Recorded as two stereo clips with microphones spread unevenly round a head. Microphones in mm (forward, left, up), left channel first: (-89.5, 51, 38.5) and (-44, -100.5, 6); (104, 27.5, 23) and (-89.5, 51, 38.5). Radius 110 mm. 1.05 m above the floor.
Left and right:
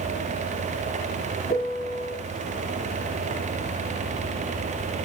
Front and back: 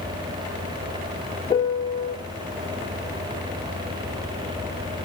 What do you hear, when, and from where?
1.5 s a piano: 60° left, 0.8 m